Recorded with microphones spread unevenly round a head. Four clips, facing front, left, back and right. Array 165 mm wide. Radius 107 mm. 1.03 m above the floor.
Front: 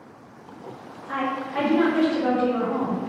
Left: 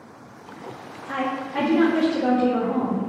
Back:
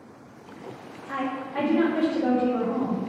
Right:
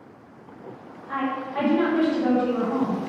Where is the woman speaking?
95° left, 3 m.